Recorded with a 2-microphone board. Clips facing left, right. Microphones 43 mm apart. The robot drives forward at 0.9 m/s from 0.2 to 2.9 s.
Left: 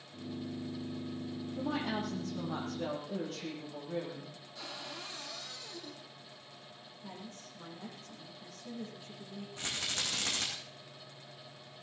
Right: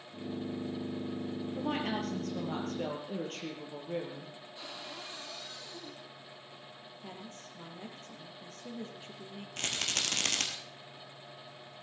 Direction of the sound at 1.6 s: 70° right (ahead or behind).